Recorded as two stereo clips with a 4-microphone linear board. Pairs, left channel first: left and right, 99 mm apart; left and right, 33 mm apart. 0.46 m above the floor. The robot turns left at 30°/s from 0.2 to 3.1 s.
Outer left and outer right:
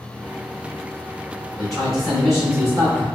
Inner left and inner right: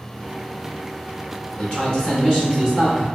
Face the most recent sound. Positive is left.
turn(degrees=25)